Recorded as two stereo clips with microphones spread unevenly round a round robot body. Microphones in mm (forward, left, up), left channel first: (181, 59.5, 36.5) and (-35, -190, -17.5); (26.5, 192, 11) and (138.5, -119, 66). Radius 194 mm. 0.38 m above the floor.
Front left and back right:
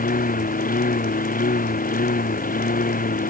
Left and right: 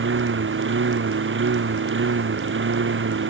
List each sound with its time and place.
0.0 s a lawn mower: 15° right